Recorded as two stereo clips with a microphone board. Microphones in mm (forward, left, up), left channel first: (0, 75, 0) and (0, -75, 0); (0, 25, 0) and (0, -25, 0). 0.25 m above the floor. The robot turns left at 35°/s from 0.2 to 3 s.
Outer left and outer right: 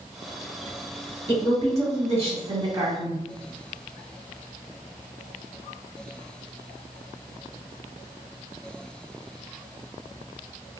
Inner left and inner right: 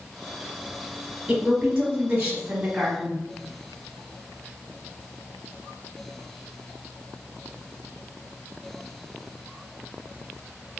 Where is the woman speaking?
25° right (ahead or behind), 1.0 m; by 3.2 s 20° right (ahead or behind), 1.0 m.